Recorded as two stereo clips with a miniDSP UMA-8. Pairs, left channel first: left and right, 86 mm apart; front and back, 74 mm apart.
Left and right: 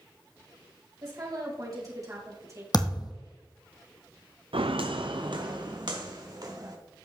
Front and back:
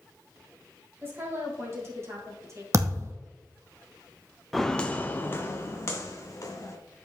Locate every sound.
1.0 s a woman speaking: 125° right, 3.5 m; by 2.6 s 140° right, 2.5 m
2.7 s a thud: 130° left, 1.4 m
4.5 s footsteps: 90° right, 0.7 m; by 6.8 s 50° right, 2.5 m